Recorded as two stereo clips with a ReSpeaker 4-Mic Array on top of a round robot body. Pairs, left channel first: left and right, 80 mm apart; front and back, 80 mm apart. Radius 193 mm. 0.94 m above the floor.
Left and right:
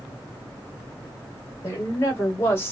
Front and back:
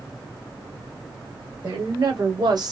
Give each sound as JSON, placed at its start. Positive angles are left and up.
{"t": 1.6, "sound": "a woman speaking", "azimuth_deg": 145, "distance_m": 2.5}